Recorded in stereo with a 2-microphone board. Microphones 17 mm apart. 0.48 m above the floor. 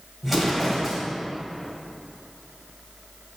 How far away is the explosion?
About 2 m.